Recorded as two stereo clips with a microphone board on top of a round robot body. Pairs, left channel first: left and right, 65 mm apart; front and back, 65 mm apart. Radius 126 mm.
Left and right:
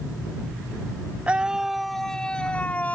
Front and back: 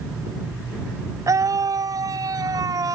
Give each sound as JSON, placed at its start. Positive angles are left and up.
{"t": 1.3, "sound": "a scream", "azimuth_deg": -160}